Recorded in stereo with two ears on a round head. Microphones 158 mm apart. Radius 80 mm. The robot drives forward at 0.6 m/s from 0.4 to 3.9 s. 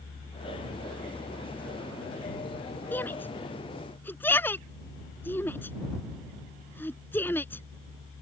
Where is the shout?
10° left (ahead or behind).